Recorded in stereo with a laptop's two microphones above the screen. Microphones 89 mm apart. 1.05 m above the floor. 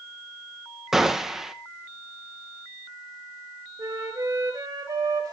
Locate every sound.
0.9 s a gunshot: 5° right (ahead or behind), 0.7 m
3.8 s a flute: 45° right (ahead or behind), 1.7 m